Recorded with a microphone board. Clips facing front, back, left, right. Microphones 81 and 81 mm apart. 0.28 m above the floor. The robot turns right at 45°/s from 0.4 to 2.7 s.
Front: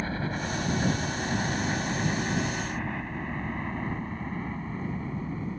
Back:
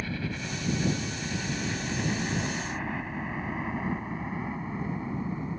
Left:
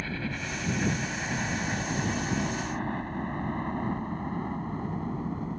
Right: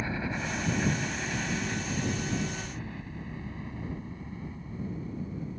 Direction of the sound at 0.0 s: 30° right.